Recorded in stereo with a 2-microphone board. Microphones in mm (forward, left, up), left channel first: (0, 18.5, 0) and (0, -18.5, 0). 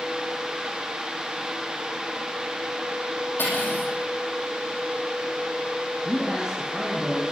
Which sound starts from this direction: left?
Cutlery clinking, at 3.4 s.